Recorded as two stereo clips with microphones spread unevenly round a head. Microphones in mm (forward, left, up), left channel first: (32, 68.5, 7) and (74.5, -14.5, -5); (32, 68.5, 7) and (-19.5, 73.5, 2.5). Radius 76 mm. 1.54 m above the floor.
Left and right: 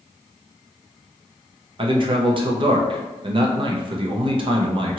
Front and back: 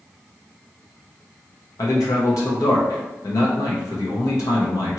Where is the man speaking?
40° right, 0.7 m.